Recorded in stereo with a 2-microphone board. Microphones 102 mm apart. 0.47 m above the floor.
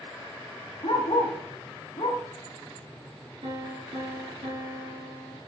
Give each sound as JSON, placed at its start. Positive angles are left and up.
{"t": 0.8, "sound": "a dog barking", "side_deg": 80, "distance_m": 1.2}
{"t": 3.4, "sound": "a piano", "side_deg": -70, "distance_m": 2.5}